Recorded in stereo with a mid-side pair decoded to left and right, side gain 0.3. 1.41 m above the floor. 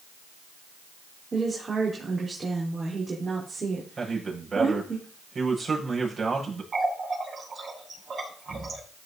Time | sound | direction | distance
1.3 | a woman speaking | 45° right | 4.5 m
4.0 | a man speaking | 50° right | 7 m
6.7 | a running tap | 55° right | 6.5 m